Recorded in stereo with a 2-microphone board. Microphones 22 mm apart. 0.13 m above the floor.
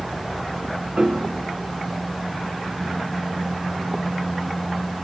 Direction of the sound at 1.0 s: 65° right (ahead or behind).